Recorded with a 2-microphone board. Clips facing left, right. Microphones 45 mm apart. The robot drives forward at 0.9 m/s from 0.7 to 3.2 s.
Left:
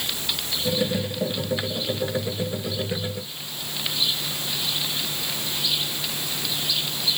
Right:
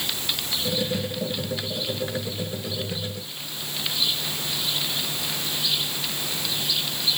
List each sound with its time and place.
Only background noise.